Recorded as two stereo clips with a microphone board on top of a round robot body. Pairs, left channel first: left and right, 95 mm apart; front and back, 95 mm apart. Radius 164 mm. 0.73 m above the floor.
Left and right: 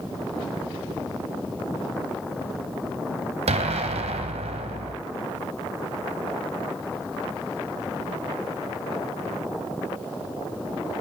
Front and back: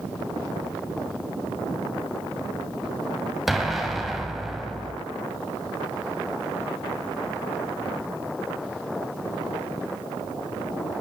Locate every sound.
3.5 s an explosion: 95° right, 1.3 m